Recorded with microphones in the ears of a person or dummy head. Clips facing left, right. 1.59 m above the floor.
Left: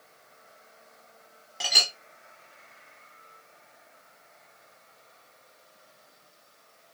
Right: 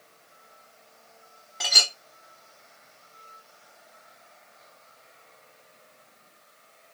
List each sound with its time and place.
1.6 s a clink: 5° left (ahead or behind), 1.0 m